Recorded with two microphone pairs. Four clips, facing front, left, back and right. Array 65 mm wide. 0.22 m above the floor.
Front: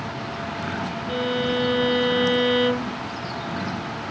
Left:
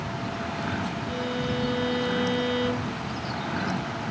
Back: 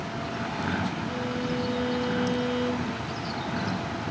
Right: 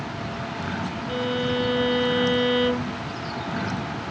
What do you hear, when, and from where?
1.1 s a violin: 25° right